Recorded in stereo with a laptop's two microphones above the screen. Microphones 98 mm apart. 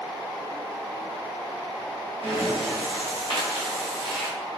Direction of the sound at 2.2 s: 65° right (ahead or behind).